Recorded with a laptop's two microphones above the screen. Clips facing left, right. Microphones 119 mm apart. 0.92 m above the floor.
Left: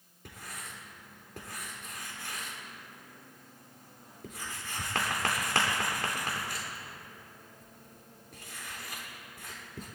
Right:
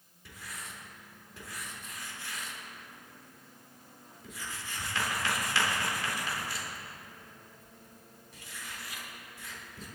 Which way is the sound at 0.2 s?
60° left (ahead or behind).